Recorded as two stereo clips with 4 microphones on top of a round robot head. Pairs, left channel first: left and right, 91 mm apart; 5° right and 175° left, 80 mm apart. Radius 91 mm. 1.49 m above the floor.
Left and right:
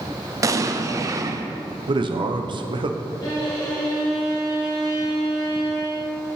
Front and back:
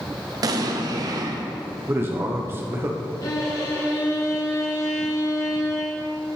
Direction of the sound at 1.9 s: 120° right.